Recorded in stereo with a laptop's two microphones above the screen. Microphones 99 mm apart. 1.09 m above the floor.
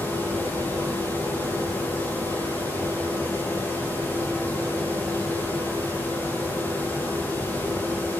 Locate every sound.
0.0 s a fan: 20° left (ahead or behind), 1.5 m